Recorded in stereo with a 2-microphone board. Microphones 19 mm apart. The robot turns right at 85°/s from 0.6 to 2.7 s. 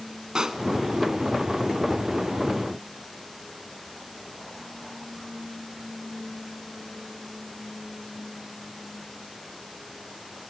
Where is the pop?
35° right (ahead or behind), 0.9 m.